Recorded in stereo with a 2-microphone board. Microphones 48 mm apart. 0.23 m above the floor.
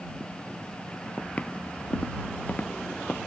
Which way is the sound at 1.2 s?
25° left (ahead or behind).